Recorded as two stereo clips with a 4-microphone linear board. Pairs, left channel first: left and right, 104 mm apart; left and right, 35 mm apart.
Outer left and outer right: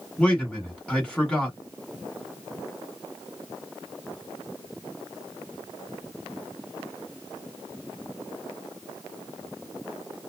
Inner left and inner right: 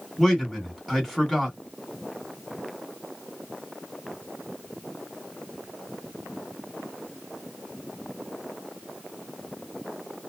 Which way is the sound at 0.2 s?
10° left (ahead or behind).